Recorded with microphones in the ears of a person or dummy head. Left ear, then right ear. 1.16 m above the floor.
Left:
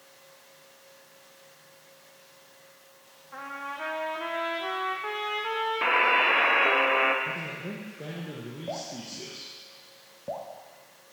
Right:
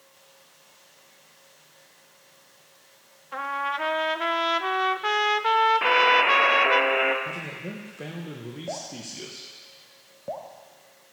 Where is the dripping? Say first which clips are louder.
Even; 15° right (ahead or behind), 0.8 m.